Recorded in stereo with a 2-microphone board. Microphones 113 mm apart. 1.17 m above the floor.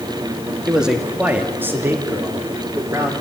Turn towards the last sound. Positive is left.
turn(degrees=-30)  # may be behind; listen again after turning